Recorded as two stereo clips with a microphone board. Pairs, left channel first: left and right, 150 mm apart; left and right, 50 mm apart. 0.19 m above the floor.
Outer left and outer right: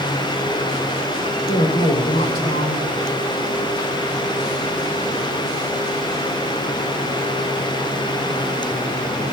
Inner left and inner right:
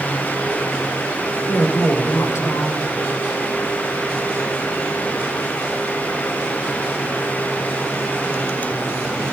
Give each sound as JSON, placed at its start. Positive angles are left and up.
{"t": 1.5, "sound": "a woman speaking", "side_deg": 80, "distance_m": 6.5}